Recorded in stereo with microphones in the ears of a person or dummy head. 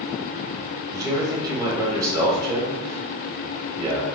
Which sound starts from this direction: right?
A man speaking, at 0.9 s.